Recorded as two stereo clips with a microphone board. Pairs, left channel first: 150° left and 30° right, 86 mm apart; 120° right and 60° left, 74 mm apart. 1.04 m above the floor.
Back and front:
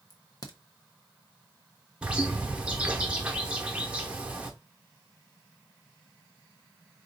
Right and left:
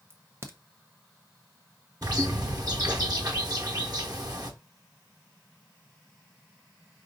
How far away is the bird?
About 1.0 m.